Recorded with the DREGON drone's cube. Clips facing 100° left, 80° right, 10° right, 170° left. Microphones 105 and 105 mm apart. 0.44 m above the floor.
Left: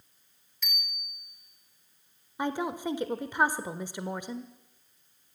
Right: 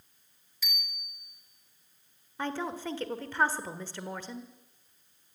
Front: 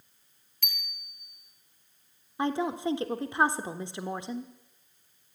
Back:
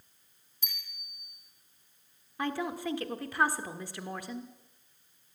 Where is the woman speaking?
35° left, 1.4 m.